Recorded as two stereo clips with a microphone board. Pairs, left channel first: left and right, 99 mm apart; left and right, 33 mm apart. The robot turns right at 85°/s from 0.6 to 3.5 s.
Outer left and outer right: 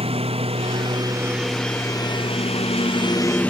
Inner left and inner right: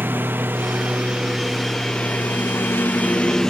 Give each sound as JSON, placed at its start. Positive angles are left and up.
{"t": 0.0, "sound": "a lawn mower", "azimuth_deg": -80}